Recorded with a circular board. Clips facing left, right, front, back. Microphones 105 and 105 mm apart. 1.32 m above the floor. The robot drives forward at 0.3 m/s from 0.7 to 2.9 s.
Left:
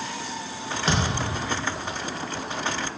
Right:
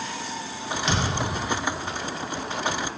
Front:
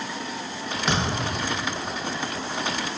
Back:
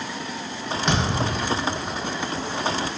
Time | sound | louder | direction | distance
0.9 | a thud | left 1 dB, back 2 dB | 85° left | 0.7 m